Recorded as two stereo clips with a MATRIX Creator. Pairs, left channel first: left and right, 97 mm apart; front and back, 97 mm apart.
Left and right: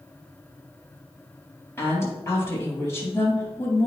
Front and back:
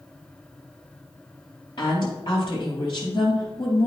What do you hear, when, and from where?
1.8 s a woman speaking: 25° left, 3.5 m